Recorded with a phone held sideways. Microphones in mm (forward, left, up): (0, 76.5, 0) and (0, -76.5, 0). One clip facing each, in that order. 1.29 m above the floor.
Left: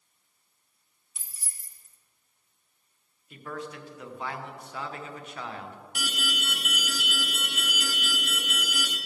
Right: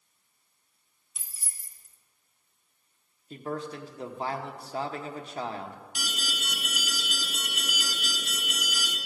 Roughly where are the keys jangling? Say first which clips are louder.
Even; centre.